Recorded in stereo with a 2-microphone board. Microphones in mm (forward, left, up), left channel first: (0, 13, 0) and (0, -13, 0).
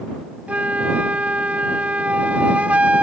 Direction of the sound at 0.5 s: 60° right (ahead or behind).